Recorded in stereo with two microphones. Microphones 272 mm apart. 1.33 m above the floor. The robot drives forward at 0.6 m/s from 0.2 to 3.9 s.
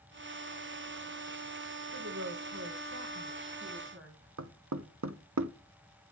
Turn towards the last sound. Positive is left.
turn(degrees=-75)  # may be behind; listen again after turning